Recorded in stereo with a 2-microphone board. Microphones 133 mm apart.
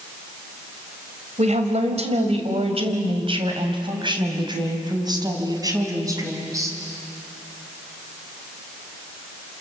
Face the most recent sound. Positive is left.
turn(degrees=-25)  # may be behind; listen again after turning